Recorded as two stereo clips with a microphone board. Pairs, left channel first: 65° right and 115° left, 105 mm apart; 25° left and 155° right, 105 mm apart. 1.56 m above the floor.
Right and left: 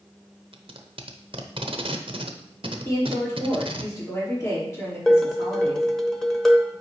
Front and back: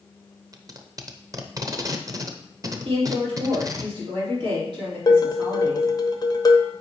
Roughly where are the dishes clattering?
Ahead.